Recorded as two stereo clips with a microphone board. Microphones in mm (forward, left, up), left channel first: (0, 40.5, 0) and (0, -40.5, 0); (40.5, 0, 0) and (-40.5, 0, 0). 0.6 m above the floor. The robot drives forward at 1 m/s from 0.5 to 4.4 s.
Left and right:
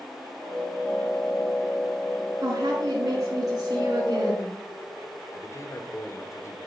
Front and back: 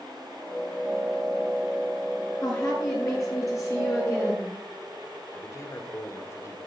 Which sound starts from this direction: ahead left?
A man speaking, at 5.3 s.